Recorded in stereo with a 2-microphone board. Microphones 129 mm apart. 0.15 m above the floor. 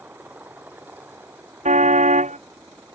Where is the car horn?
65° right (ahead or behind).